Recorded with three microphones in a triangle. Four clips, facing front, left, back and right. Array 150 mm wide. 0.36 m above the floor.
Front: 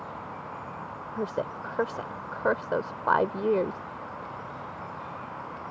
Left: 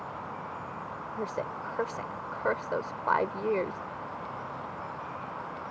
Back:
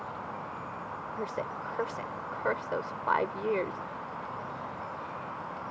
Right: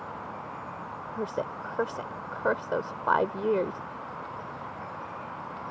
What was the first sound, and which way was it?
A woman speaking, 25° right.